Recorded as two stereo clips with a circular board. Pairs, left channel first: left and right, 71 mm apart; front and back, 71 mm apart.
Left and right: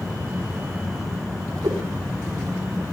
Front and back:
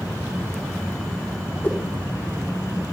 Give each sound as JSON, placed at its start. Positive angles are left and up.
{"t": 1.6, "sound": "a whoosh", "azimuth_deg": -65, "distance_m": 5.0}